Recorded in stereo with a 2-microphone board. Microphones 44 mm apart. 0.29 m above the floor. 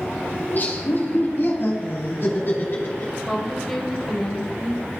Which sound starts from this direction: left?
Laughter, at 0.4 s.